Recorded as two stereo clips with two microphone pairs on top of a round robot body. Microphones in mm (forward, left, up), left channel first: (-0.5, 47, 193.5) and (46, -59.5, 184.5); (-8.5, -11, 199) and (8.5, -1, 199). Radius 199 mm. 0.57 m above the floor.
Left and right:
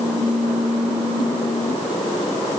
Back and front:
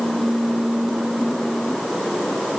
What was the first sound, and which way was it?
Only background noise.